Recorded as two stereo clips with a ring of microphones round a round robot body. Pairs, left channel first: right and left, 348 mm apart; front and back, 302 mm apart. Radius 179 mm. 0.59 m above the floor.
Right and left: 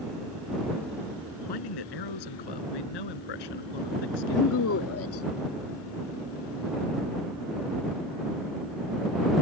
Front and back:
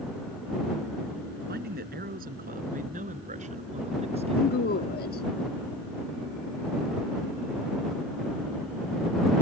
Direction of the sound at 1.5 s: 115° right.